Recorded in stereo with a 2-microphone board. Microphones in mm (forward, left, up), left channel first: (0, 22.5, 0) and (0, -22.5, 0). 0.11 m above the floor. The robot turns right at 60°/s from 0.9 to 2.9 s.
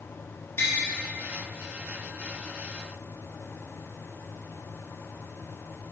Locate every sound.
0.6 s tapping: 55° left (ahead or behind), 3 m